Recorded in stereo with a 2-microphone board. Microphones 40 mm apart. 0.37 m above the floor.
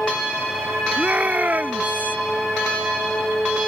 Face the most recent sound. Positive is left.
turn(degrees=-45)  # may be behind; listen again after turning